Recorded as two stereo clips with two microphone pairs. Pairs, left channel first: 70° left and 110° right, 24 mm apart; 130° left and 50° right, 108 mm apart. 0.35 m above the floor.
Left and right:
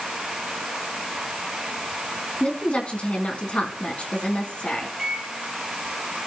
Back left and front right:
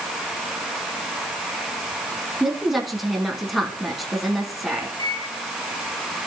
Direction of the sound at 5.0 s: Straight behind.